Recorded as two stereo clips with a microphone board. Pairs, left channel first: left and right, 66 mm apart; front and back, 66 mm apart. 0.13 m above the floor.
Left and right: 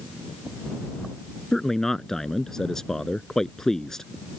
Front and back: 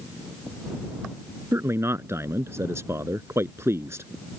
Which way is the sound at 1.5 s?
170° left.